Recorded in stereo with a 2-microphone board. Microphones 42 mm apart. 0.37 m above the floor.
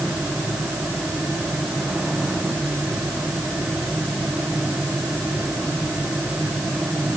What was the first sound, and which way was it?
Only background noise.